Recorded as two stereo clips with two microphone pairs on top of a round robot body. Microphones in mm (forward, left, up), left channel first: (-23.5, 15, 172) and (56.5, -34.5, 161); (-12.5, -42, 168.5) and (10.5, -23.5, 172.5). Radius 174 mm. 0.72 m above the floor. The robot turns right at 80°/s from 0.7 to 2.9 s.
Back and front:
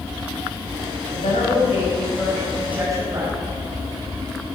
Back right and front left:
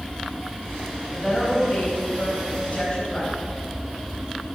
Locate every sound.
1.1 s a woman speaking: 125° left, 5 m; by 3.4 s 90° right, 5 m